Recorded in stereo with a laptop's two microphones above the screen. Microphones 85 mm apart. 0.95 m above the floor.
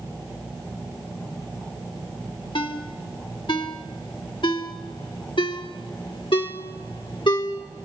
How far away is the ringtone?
About 1.9 m.